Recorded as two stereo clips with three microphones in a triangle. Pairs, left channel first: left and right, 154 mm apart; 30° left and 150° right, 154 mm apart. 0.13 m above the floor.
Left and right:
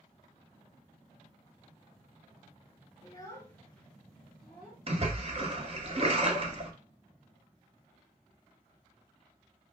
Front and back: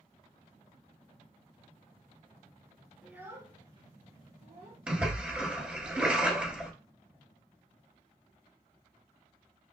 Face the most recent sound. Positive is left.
turn(degrees=-70)